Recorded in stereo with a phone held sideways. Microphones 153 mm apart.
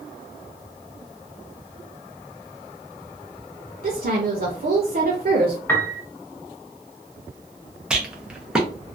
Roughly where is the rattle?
Centre.